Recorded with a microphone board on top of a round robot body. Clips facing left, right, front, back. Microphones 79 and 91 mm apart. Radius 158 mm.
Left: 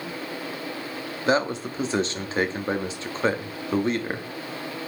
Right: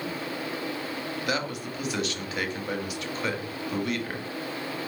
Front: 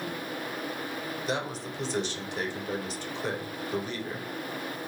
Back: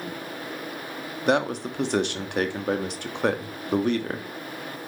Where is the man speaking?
150° left, 2.5 m.